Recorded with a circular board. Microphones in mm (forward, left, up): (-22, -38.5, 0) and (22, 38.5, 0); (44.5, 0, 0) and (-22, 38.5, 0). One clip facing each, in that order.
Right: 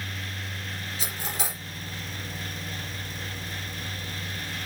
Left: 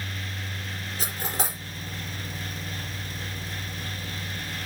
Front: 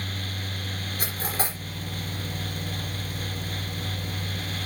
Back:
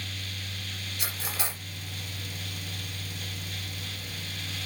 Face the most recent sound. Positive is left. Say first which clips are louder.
# left 4 dB, front 5 dB
turn(degrees=15)